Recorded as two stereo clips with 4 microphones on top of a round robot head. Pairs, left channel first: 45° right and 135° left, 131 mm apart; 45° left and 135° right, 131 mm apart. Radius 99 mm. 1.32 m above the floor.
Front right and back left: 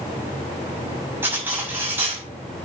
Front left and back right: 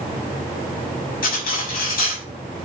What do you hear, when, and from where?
1.2 s cutlery clinking: 60° left, 6 m